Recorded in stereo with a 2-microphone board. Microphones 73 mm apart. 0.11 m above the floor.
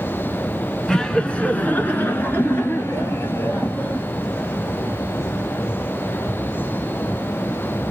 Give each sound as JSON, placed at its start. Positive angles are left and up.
{"t": 0.9, "sound": "laughter", "side_deg": 10, "distance_m": 1.2}